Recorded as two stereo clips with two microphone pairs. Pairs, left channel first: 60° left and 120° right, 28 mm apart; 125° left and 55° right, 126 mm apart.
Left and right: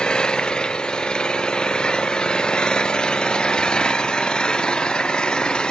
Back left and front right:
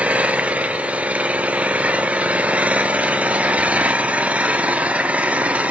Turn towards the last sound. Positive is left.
turn(degrees=20)